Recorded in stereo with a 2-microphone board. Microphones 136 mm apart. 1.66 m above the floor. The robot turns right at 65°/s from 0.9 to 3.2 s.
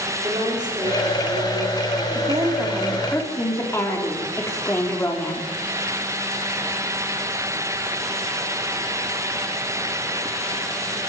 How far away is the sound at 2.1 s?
About 5 m.